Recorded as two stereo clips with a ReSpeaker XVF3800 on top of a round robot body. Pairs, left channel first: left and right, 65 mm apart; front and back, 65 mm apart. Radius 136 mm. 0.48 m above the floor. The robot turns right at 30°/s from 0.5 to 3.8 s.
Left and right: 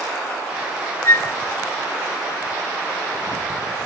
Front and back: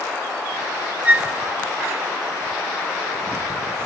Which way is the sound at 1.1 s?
120° left.